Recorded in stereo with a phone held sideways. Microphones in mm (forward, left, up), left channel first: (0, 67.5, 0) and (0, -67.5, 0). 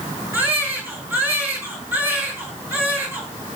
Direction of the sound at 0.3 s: 15° right (ahead or behind).